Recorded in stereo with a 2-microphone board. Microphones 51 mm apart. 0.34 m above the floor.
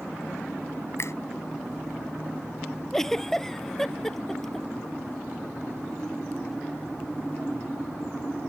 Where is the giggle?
10° left (ahead or behind).